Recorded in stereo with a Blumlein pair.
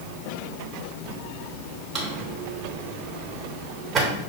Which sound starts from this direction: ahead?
A drawer, at 1.9 s.